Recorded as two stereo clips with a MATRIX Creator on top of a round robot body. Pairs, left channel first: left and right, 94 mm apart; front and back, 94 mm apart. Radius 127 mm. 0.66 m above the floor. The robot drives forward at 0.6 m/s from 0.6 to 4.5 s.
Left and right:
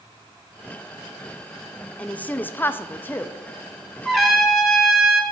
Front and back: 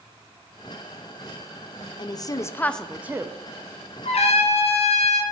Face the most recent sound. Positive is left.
turn(degrees=-5)